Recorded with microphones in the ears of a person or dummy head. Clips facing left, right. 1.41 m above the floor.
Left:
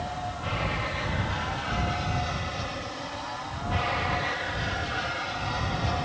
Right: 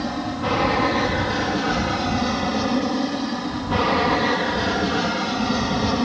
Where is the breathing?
No breathing in this recording.